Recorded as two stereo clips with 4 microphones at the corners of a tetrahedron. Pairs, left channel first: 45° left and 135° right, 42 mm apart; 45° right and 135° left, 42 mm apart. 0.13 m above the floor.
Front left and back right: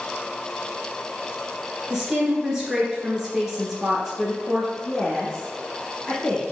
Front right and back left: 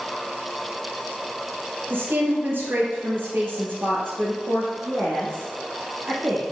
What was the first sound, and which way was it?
A woman speaking, 145° left.